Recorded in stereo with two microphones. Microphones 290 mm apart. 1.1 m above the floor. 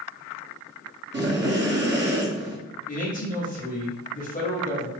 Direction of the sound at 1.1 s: 40° right (ahead or behind).